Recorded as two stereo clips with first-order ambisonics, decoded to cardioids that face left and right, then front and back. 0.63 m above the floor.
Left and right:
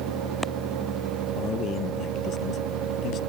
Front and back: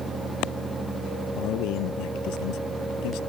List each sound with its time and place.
1.4 s a man speaking: 35° left